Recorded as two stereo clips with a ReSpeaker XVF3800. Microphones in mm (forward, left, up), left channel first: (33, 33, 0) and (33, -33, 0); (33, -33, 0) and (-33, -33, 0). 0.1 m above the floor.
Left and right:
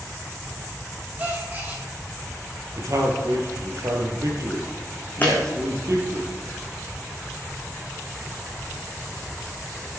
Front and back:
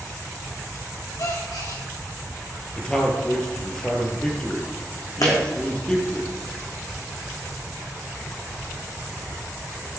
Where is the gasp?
25° right, 5 m.